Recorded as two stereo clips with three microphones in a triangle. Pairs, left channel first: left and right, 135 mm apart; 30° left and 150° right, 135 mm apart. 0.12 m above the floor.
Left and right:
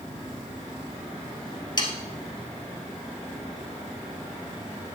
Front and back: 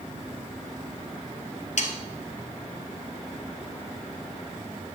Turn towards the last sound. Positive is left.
turn(degrees=40)